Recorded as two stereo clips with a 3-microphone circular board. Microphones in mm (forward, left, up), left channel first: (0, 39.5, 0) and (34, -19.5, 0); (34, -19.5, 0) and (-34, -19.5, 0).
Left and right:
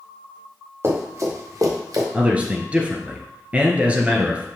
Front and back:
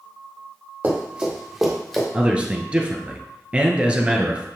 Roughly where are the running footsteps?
Right.